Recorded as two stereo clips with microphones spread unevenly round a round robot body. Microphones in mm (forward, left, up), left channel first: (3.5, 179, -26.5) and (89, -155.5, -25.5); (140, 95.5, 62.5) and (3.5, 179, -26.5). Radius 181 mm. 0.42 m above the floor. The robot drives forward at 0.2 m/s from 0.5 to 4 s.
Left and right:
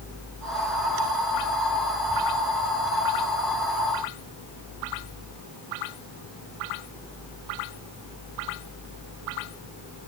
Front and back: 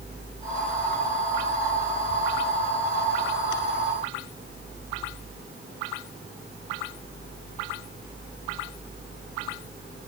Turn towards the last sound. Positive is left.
No sound to turn to.